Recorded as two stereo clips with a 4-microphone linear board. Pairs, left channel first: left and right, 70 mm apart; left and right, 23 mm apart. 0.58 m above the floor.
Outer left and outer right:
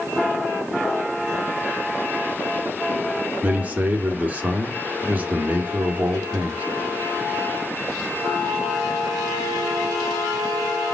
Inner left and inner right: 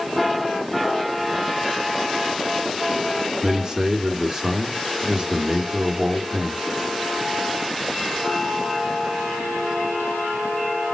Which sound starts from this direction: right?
A man speaking, at 3.4 s.